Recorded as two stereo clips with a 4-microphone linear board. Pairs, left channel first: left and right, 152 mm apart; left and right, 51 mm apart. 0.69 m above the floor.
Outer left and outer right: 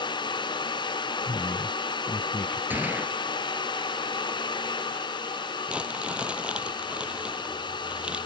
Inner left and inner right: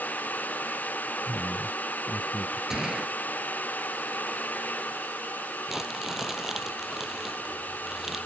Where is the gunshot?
10° right (ahead or behind).